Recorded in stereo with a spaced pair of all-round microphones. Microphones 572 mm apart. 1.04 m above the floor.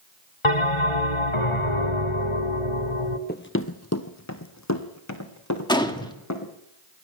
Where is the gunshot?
5° left (ahead or behind), 2 m.